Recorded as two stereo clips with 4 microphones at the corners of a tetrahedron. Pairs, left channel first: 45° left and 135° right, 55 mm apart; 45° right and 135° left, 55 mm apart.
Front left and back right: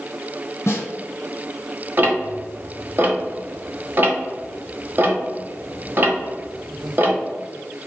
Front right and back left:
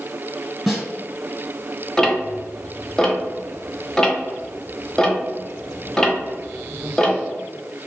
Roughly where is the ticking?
Behind right.